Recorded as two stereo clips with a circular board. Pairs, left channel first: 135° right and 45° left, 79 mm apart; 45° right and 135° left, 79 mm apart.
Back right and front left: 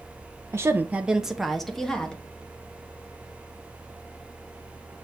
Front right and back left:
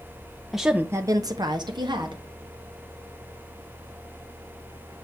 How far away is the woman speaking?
About 0.5 m.